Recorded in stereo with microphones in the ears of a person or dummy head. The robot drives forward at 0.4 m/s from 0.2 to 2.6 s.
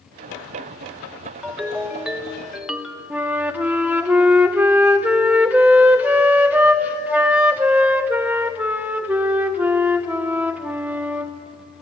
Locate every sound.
1.4 s a ringtone: 5° right (ahead or behind), 1.2 m
3.1 s a flute: 5° right (ahead or behind), 0.9 m